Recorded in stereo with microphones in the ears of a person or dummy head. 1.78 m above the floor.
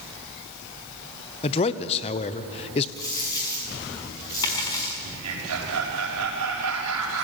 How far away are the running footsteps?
I don't hear running footsteps.